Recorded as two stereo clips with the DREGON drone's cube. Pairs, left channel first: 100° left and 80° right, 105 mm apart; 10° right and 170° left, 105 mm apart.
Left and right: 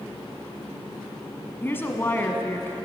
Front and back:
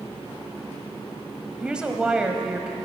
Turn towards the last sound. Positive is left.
turn(degrees=105)